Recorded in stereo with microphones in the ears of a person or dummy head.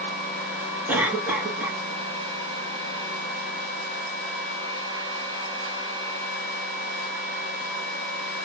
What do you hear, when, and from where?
0.9 s a cough: 5° right (ahead or behind), 1.1 m